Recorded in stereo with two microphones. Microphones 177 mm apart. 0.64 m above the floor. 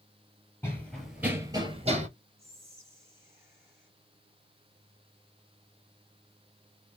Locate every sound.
0.6 s running footsteps: 15° left (ahead or behind), 1.0 m; by 2.1 s 40° right (ahead or behind), 0.8 m
2.4 s whispering: 15° right (ahead or behind), 1.2 m